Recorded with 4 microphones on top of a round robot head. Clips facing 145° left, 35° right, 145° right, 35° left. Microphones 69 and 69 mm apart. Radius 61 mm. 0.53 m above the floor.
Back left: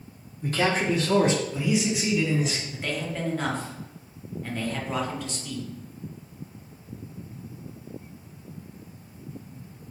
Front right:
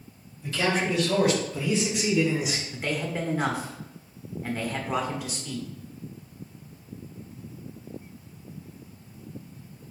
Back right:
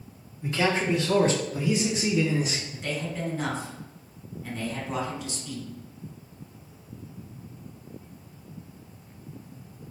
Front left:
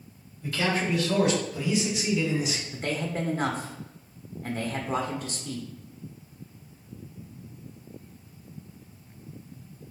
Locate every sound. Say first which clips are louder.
0.4 s a man speaking: back left 2 dB, back right 2 dB; 155° left, 1.4 m; by 2.6 s 110° right, 1.3 m
2.7 s a man speaking: front right 1 dB, front left 2 dB; 40° left, 1.0 m